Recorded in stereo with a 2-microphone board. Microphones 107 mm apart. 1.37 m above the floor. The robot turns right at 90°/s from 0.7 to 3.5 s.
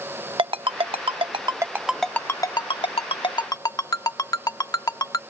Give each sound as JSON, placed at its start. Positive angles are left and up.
{"t": 0.4, "sound": "a ringtone", "side_deg": -55}